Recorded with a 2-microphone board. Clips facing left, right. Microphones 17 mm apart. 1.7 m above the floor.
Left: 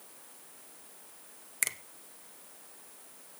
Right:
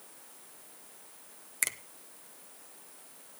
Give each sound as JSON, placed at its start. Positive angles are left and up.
{"t": 1.6, "sound": "a finger snap", "side_deg": 0, "distance_m": 0.8}